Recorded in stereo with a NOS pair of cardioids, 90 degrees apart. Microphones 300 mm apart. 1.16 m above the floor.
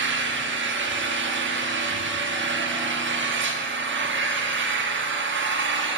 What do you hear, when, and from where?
0.0 s an engine running: 40° right, 1.7 m